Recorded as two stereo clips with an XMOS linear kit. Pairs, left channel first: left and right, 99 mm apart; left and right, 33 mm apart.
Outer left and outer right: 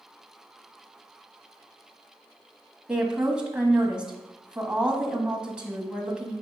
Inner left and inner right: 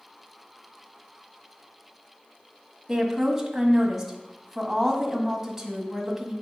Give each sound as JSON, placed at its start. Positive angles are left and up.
{"t": 2.9, "sound": "a woman speaking", "side_deg": -10, "distance_m": 1.5}